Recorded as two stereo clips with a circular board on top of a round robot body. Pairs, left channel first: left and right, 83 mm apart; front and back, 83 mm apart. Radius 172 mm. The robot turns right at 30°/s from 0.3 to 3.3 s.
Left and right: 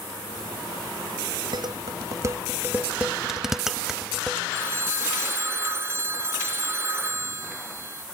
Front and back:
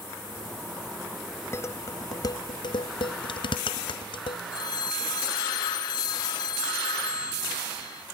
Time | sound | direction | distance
1.5 | dishes clattering | 60° right | ?
4.5 | a phone ringing | 30° right | ?